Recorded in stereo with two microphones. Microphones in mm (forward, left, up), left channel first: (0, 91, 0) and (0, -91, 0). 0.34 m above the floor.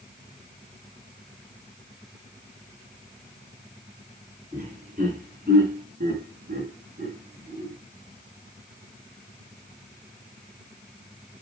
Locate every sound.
4.5 s laughter: 40° right (ahead or behind), 4.5 m; by 7.7 s 25° right (ahead or behind), 2 m